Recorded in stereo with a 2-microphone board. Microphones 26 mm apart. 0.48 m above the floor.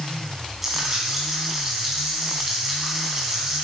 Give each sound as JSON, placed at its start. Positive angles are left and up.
{"t": 0.6, "sound": "frying", "side_deg": -10, "distance_m": 5.0}